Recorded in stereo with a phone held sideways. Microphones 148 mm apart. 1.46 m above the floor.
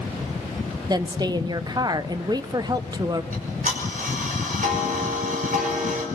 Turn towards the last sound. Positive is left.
turn(degrees=-65)  # may be behind; listen again after turning